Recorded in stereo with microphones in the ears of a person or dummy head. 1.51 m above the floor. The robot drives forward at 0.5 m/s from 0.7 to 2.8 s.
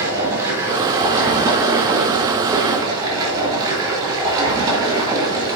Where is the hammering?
I don't hear hammering.